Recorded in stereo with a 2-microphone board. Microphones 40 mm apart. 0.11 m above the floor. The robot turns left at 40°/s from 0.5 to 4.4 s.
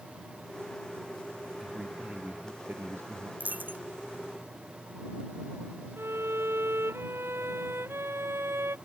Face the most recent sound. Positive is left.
turn(degrees=-70)  # may be behind; listen again after turning